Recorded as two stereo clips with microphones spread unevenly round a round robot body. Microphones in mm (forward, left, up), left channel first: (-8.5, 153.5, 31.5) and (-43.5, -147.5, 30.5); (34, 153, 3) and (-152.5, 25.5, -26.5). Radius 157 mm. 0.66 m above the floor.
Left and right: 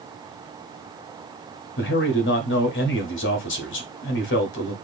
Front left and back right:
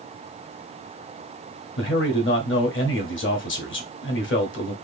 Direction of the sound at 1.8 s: 50° left.